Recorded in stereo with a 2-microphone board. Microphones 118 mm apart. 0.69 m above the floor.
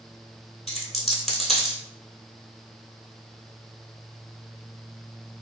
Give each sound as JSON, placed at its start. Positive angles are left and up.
{"t": 0.7, "sound": "a dropped coin", "side_deg": 0, "distance_m": 0.8}